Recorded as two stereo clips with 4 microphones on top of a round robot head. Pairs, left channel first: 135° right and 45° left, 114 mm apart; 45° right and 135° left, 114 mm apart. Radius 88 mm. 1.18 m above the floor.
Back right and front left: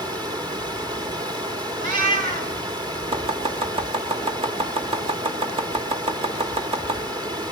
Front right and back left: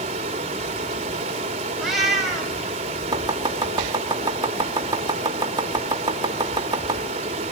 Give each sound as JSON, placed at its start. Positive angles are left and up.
{"t": 0.0, "sound": "running water", "azimuth_deg": 100, "distance_m": 2.0}
{"t": 1.8, "sound": "a cat meowing", "azimuth_deg": 50, "distance_m": 4.0}
{"t": 3.1, "sound": "chopping", "azimuth_deg": 80, "distance_m": 2.0}